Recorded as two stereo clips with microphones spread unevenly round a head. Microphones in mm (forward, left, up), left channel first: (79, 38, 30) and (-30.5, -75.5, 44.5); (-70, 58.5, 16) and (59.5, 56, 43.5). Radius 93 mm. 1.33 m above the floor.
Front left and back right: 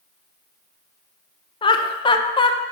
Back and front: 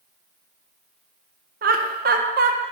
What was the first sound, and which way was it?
Laughter, 15° right.